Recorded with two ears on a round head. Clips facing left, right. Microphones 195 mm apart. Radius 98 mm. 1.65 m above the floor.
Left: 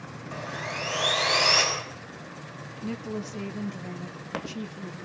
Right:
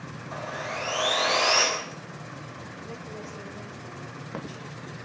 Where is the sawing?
35° left (ahead or behind), 6.5 m.